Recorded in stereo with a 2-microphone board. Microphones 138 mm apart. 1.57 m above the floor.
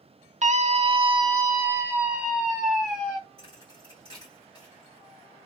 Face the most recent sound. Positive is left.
turn(degrees=30)  # may be behind; listen again after turning